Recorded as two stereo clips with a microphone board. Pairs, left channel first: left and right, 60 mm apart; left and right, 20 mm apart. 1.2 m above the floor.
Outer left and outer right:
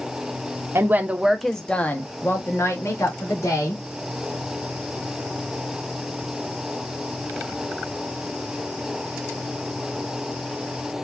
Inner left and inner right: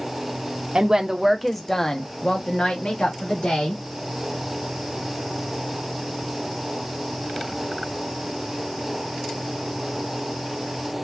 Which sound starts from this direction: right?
A woman speaking, at 0.8 s.